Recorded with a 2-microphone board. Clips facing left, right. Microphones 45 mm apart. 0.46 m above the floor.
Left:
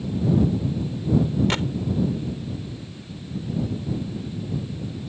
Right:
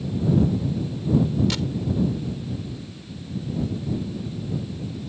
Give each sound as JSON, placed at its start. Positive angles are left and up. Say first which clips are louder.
{"t": 1.5, "sound": "a gunshot", "louder": "left 3 dB", "side_deg": 35}